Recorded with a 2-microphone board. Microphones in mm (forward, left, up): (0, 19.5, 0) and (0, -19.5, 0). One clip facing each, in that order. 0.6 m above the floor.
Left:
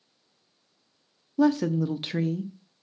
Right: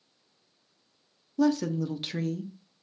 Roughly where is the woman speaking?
Centre.